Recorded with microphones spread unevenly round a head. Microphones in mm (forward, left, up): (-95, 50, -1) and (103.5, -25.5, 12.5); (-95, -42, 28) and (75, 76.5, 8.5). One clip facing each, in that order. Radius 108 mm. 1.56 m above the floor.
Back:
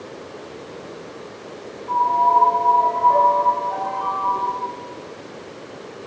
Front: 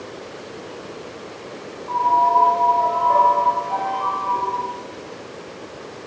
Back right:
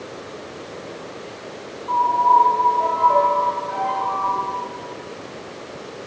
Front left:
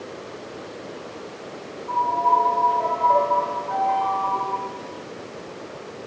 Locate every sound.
1.9 s a piano: 70° right, 4.5 m